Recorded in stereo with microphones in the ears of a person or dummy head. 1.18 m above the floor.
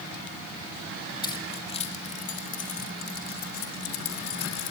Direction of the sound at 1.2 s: 25° left (ahead or behind).